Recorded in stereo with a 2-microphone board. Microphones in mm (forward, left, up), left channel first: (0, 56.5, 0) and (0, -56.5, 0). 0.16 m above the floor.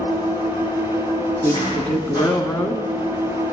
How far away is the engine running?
About 6 m.